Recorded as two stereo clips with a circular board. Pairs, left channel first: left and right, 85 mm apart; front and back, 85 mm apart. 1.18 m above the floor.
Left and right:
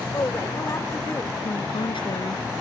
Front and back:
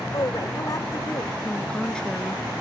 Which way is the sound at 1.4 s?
80° left.